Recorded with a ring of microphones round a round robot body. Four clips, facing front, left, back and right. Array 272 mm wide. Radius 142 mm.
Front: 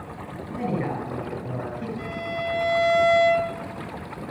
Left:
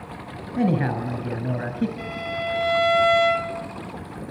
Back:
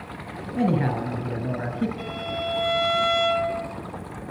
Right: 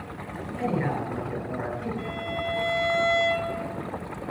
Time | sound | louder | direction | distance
0.6 | a man speaking | left 5 dB, back 4 dB | 125° left | 7.5 m
2.0 | a violin | left 2 dB, even | 130° left | 2.5 m